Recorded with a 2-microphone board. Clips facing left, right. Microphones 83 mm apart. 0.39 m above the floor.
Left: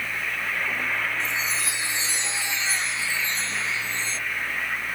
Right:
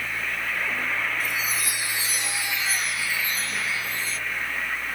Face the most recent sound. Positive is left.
turn(degrees=25)  # may be behind; listen again after turning